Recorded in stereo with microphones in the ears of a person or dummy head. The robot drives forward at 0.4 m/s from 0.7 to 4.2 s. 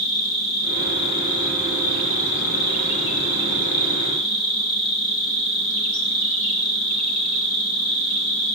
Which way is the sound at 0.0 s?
80° left.